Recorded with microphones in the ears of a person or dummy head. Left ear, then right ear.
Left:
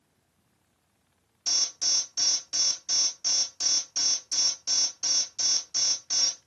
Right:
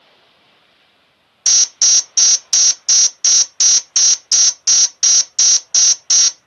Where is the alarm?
45° right (ahead or behind), 0.5 m.